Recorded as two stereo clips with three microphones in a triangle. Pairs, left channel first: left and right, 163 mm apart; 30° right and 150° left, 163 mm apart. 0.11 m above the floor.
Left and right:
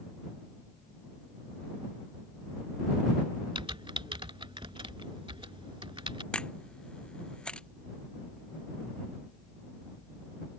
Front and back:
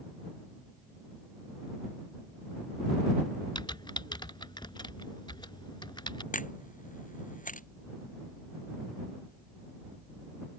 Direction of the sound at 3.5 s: 65° right.